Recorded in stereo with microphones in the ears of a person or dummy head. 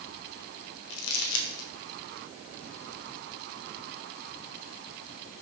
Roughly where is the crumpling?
Left.